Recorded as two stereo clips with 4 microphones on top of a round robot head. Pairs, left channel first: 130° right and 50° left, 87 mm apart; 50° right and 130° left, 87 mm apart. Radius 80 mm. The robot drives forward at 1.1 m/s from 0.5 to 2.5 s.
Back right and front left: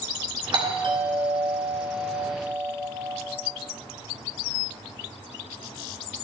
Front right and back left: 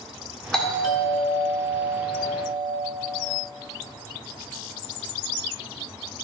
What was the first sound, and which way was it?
A doorbell, 35° left.